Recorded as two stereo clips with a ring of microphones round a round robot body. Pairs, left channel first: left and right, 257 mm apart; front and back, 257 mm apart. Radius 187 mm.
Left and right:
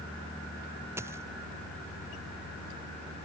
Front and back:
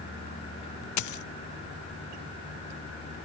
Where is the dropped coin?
5° right.